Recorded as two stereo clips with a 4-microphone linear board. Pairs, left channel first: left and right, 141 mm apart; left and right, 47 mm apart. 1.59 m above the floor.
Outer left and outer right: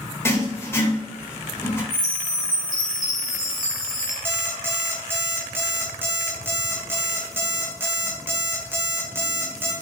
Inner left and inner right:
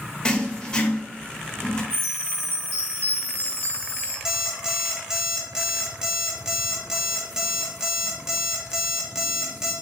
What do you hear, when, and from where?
0.2 s writing: 15° left (ahead or behind), 1.1 m
1.9 s a chime: 75° right (ahead or behind), 2 m
4.2 s an alarm clock: 15° right (ahead or behind), 0.9 m